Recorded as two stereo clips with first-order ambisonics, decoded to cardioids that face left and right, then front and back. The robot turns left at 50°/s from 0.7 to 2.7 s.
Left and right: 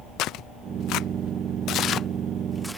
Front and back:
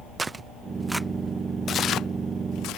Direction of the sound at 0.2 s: 105° left.